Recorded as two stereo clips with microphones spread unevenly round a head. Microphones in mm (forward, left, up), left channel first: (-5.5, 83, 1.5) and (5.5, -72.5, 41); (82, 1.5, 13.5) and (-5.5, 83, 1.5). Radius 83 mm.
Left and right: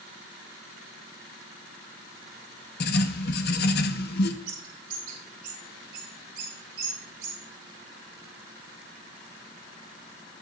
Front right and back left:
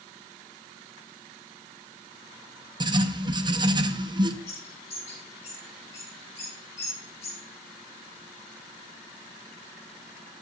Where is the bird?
120° right, 4.5 m.